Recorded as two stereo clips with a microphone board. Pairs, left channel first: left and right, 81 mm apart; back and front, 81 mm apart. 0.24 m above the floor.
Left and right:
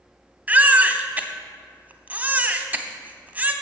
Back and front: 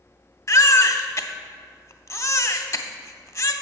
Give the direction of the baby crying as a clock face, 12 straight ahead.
5 o'clock.